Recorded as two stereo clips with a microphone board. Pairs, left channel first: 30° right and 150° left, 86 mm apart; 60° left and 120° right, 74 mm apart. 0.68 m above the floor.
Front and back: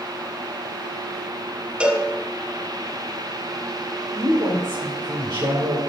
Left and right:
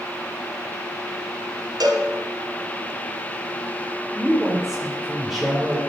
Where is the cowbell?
135° right, 1.5 m.